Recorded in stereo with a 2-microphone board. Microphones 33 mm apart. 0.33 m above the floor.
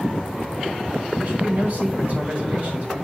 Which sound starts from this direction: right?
A man speaking, at 1.2 s.